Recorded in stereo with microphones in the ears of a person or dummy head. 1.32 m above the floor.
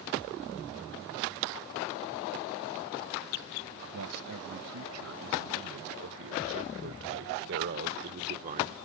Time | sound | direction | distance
3.9 | a man speaking | 80° right | ?